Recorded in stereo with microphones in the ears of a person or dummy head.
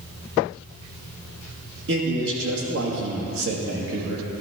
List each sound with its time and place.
1.9 s a man speaking: 65° right (ahead or behind), 1.9 m